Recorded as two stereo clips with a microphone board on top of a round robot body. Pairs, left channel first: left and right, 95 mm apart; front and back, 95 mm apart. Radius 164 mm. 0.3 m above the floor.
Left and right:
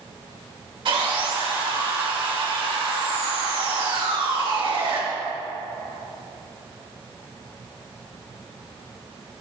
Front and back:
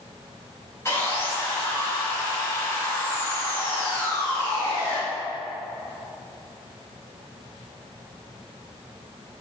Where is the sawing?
65° right, 4.5 m.